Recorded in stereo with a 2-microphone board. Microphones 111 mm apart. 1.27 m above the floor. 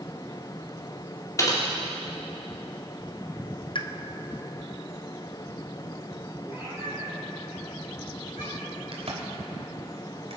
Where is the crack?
60° right (ahead or behind), 2.5 m.